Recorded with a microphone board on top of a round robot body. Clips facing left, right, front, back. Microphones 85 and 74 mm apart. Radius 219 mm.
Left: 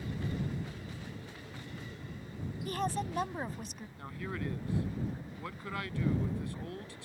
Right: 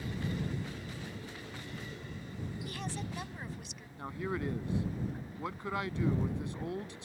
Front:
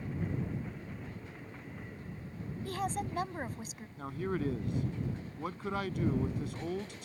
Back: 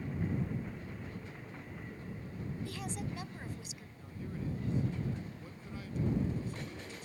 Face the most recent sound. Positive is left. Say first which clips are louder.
# right 4 dB, front 9 dB
turn(degrees=-20)